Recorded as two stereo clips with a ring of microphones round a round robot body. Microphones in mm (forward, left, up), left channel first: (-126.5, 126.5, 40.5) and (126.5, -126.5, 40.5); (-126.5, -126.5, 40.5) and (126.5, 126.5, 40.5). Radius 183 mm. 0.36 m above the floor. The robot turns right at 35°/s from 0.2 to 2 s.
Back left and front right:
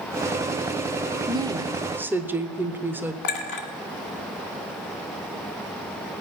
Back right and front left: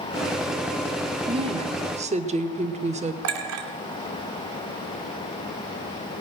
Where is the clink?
95° left, 2 m.